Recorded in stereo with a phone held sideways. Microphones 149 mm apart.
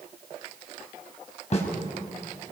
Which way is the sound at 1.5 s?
50° left (ahead or behind).